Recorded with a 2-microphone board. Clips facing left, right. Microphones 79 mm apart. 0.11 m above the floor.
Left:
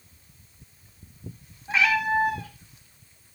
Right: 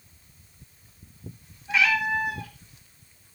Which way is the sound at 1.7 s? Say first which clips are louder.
Left 1 dB; 35° left (ahead or behind).